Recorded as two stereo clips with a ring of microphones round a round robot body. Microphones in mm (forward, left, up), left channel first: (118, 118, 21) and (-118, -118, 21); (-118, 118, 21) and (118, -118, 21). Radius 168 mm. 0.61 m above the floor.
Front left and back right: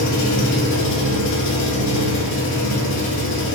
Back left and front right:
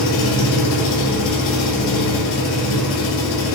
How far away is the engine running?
About 1.1 m.